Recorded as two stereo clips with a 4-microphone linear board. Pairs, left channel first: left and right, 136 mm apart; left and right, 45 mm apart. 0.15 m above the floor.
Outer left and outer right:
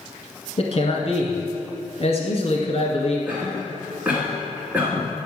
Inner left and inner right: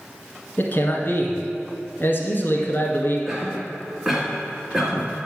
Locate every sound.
0.6 s a man speaking: 50° left (ahead or behind), 1.5 m
3.3 s a cough: 10° right (ahead or behind), 1.7 m